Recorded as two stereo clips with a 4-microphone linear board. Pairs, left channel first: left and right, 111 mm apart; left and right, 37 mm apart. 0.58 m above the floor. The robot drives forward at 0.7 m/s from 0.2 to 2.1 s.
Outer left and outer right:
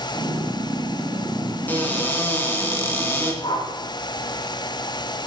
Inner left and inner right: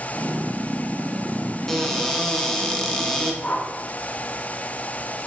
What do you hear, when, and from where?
1.7 s a cupboard door: 15° left (ahead or behind), 2 m
3.4 s a whoosh: 45° left (ahead or behind), 1.3 m